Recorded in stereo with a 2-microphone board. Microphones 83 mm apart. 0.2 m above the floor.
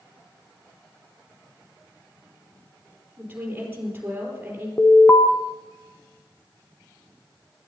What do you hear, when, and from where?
3.2 s a woman speaking: 20° right (ahead or behind), 5 m
4.8 s an alarm: 30° left (ahead or behind), 1.0 m